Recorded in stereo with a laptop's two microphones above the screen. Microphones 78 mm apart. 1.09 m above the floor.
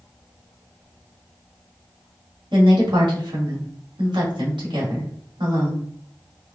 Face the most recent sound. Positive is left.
turn(degrees=-80)